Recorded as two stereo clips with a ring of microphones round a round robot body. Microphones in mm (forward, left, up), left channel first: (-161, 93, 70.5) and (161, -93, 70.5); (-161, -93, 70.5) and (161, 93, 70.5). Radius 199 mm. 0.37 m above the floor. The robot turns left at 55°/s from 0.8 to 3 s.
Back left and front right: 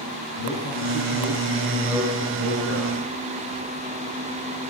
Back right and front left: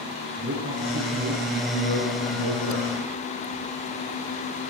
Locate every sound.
0.4 s a man speaking: 95° left, 7 m; by 3.1 s 30° right, 7 m